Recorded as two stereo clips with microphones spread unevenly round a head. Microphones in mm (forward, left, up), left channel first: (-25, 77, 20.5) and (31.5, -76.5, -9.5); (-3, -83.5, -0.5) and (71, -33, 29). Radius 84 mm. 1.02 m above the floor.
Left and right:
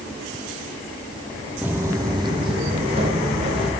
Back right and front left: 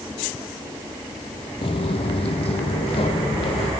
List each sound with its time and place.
1.6 s footsteps: 160° right, 1.2 m; by 3.7 s 125° right, 3.5 m